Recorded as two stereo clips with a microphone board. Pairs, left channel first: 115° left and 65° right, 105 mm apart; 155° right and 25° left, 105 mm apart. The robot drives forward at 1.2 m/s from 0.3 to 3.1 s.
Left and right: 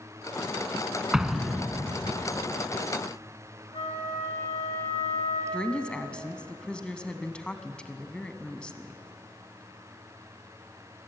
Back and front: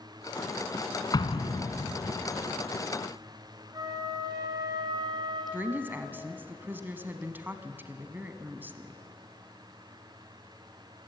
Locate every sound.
1.1 s an explosion: 150° right, 1.2 m; by 2.1 s 165° right, 2 m
3.7 s a flute: 80° left, 5 m
5.5 s a woman speaking: 50° left, 1.0 m